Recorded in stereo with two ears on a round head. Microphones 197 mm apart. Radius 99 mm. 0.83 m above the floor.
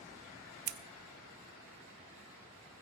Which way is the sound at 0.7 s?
50° right (ahead or behind).